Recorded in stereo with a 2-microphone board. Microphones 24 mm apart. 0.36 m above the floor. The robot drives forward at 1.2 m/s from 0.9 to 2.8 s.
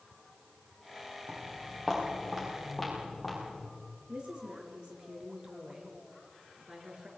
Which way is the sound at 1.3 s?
15° right (ahead or behind).